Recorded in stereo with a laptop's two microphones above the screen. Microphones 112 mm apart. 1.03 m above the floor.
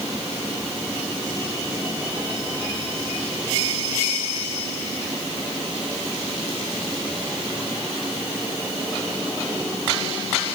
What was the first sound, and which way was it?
Only background noise.